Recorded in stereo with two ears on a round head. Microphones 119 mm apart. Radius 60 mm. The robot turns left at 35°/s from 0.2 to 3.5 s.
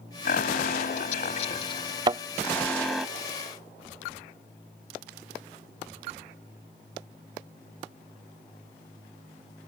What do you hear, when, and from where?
0.2 s an alarm: 95° left; by 3.1 s 5° right
2.1 s a thud: 35° right (ahead or behind); by 2.2 s 30° right (ahead or behind)